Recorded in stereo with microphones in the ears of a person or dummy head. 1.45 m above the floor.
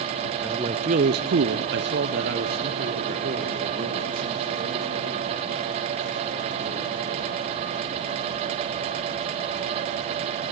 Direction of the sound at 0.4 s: 10° right (ahead or behind).